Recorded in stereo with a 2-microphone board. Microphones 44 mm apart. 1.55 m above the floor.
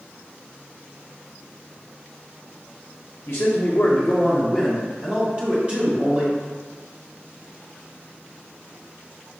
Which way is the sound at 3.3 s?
75° left (ahead or behind).